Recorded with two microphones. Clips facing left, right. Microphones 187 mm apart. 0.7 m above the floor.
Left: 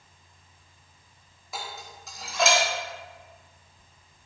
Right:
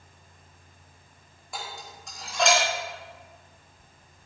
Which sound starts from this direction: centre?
Dishes clattering, at 1.5 s.